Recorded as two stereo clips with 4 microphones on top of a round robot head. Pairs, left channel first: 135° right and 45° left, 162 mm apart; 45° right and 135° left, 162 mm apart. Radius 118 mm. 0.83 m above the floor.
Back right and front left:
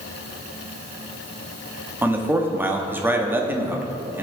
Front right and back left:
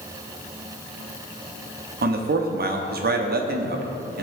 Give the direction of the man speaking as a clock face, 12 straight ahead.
8 o'clock.